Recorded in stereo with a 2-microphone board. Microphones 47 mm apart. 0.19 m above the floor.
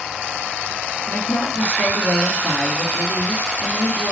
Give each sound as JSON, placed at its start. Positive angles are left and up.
{"t": 1.1, "sound": "a woman speaking", "side_deg": 55, "distance_m": 3.0}